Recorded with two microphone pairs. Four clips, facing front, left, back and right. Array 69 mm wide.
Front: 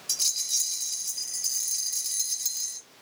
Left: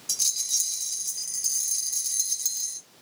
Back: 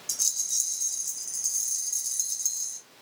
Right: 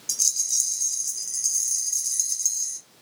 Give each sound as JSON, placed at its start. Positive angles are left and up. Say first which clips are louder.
{"t": 0.1, "sound": "a rattle", "louder": "right 1 dB, front 3 dB", "azimuth_deg": 30, "distance_m": 2.5}